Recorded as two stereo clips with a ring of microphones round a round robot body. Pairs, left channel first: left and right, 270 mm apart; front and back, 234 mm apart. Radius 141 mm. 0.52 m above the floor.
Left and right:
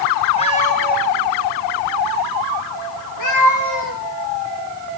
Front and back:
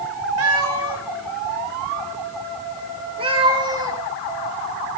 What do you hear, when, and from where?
0.4 s a cat meowing: 160° left, 2.5 m; by 4.0 s 105° left, 4 m